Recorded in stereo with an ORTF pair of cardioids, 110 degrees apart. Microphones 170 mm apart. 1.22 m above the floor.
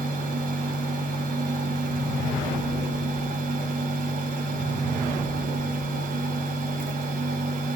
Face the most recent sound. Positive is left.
turn(degrees=-55)